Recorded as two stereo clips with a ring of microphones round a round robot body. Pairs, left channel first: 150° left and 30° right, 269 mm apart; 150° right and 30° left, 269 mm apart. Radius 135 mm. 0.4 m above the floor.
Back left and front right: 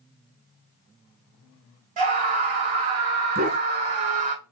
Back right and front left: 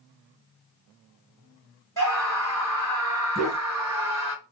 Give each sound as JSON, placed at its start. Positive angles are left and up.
{"t": 2.0, "sound": "a scream", "azimuth_deg": -75, "distance_m": 1.8}
{"t": 3.4, "sound": "a dog barking", "azimuth_deg": -60, "distance_m": 1.4}